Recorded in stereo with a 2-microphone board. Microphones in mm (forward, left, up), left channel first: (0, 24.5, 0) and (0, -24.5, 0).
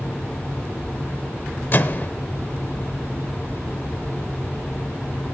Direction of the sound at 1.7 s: 45° left (ahead or behind).